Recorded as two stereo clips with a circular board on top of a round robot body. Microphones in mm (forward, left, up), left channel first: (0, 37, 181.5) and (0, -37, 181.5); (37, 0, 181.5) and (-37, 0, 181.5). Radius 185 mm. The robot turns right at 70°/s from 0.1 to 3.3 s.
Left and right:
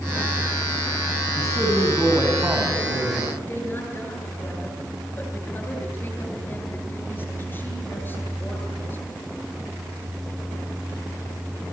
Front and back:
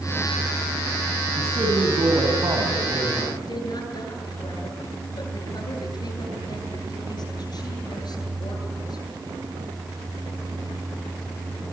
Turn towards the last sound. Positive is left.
turn(degrees=25)